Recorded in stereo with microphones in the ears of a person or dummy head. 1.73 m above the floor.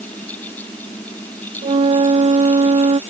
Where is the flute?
30° right (ahead or behind).